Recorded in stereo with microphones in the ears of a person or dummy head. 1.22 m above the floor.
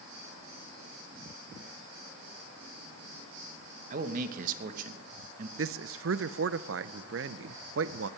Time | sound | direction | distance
3.9 | a man speaking | 40° right (ahead or behind) | 1.2 m
5.6 | a man speaking | 65° right (ahead or behind) | 0.6 m